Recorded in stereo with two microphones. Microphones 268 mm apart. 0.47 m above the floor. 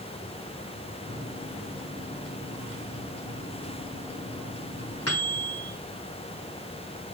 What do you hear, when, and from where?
1.1 s a microwave: 65° left (ahead or behind), 3 m